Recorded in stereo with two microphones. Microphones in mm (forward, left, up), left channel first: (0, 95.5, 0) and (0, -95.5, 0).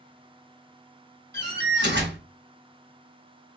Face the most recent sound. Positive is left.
turn(degrees=-65)  # may be behind; listen again after turning